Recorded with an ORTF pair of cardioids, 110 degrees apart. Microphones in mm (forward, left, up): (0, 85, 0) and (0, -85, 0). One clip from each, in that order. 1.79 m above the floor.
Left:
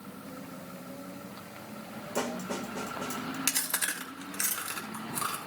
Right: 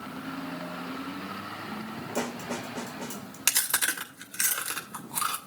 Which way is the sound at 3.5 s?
30° right.